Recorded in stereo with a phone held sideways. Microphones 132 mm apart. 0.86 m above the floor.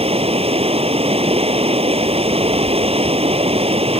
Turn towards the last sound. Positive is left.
turn(degrees=-50)  # may be behind; listen again after turning